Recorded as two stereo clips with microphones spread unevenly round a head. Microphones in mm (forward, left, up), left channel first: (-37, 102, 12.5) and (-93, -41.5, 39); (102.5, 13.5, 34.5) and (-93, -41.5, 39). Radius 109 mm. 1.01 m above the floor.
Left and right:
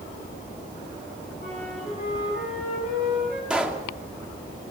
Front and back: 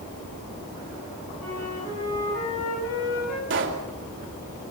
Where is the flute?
10° left, 10 m.